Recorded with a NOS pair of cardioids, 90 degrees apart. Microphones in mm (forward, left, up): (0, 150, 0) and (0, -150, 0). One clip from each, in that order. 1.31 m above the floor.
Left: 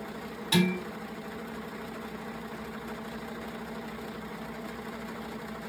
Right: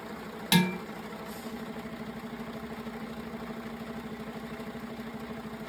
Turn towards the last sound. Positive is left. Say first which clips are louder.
# right 1 dB
turn(degrees=-70)